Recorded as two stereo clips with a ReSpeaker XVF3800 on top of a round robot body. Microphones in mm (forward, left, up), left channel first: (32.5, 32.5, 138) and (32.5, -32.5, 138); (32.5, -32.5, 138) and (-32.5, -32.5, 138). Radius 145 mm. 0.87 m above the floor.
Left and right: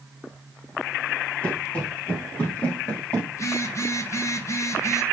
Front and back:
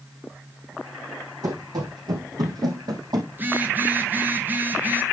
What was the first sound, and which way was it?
Running footsteps, 160° left.